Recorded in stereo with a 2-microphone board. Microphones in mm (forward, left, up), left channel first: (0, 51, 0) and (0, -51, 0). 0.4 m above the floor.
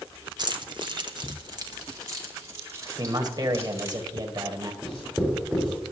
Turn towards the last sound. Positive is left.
turn(degrees=5)  # may be behind; listen again after turning